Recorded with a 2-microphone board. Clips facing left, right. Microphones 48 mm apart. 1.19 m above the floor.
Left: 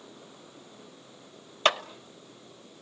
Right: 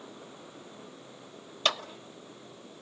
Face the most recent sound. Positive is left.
turn(degrees=35)  # may be behind; listen again after turning